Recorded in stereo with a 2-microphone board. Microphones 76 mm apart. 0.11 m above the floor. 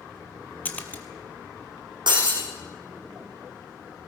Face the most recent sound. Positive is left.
turn(degrees=-75)  # may be behind; listen again after turning